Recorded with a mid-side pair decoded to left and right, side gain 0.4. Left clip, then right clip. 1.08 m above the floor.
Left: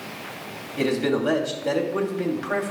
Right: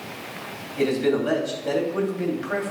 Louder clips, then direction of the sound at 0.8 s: Right 1 dB; 30° left.